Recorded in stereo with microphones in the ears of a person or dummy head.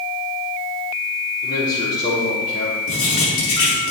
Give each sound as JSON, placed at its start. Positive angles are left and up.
{"t": 1.4, "sound": "a man speaking", "side_deg": 45, "distance_m": 6.0}
{"t": 2.9, "sound": "writing", "side_deg": 75, "distance_m": 6.0}